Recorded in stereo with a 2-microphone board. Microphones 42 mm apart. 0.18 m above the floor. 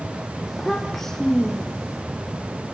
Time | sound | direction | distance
0.5 | a child speaking | centre (ahead or behind) | 4.5 m